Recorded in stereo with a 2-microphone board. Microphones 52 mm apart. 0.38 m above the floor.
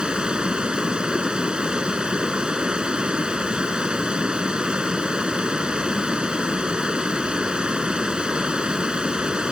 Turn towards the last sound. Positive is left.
turn(degrees=-15)  # may be behind; listen again after turning